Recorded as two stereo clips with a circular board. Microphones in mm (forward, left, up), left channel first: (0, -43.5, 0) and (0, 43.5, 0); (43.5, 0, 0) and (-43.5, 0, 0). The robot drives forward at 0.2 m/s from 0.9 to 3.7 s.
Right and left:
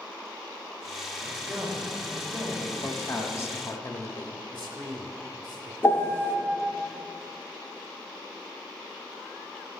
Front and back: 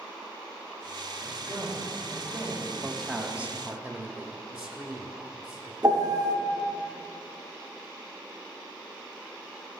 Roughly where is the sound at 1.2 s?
Behind left.